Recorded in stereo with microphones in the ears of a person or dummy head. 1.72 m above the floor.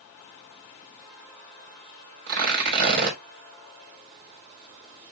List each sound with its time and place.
2.3 s tearing paper: 55° right (ahead or behind), 3 m